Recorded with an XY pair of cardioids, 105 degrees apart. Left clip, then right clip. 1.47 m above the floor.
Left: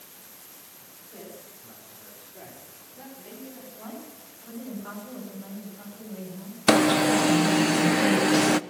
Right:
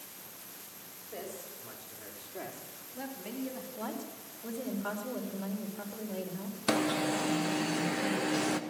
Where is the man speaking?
60° right, 5 m; by 3.7 s 65° right, 4 m.